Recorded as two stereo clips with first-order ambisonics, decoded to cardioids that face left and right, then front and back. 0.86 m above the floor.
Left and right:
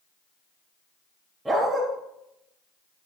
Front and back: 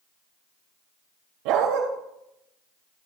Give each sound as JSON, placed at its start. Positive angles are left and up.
{"t": 1.4, "sound": "a dog barking", "azimuth_deg": -175, "distance_m": 4.0}